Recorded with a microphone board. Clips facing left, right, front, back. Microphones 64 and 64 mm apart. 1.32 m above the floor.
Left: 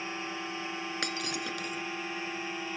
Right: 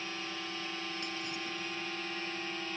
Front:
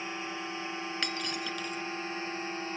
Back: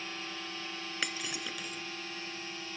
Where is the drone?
40° left; by 2.8 s 25° left.